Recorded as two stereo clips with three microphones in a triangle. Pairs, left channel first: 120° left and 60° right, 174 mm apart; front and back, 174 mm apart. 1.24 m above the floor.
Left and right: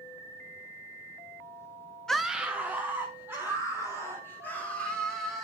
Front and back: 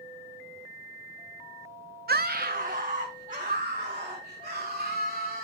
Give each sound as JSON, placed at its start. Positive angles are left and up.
{"t": 2.1, "sound": "a scream", "azimuth_deg": -155, "distance_m": 0.5}